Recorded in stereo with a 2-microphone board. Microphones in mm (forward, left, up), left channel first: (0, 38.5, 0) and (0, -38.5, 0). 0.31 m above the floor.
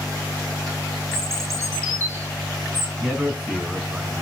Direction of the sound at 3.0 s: Centre (ahead or behind).